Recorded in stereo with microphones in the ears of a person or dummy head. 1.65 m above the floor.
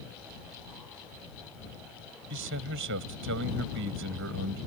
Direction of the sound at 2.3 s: 60° right (ahead or behind).